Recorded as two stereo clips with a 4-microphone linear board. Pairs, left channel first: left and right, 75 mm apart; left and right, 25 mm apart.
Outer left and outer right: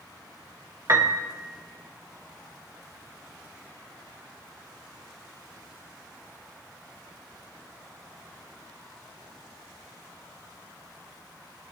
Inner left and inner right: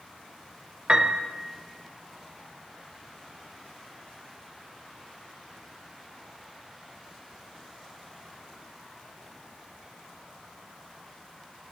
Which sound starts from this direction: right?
A piano, at 0.9 s.